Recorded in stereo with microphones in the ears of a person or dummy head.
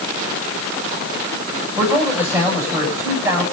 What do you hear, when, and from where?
1.8 s a man speaking: 10° right (ahead or behind), 8 m